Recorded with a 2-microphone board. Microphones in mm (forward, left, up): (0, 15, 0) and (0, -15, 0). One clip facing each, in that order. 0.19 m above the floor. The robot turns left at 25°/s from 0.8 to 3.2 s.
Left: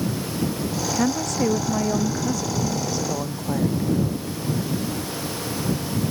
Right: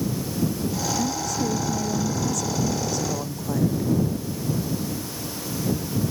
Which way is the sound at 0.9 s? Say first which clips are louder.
Left 3 dB; 70° left.